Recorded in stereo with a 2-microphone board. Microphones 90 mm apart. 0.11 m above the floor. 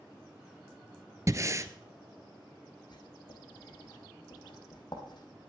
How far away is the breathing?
About 0.7 m.